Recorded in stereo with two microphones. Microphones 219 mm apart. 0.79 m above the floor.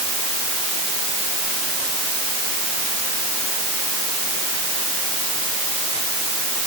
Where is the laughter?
I don't hear laughter.